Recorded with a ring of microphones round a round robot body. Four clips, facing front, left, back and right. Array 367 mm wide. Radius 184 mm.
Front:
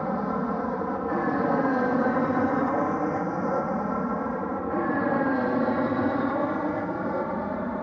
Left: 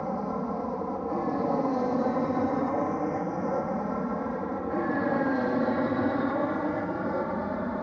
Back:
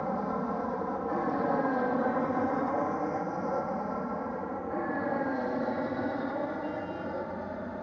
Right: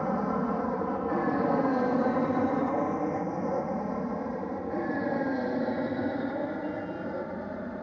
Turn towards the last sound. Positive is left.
turn(degrees=25)